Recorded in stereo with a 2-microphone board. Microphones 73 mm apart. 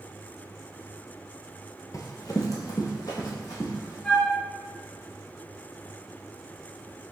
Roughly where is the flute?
Centre.